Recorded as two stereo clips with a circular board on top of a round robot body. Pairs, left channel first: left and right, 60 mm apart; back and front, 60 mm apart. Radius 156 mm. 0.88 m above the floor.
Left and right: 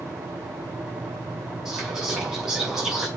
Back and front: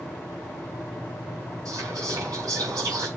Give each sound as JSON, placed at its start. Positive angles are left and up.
{"t": 1.6, "sound": "whispering", "azimuth_deg": 0, "distance_m": 6.0}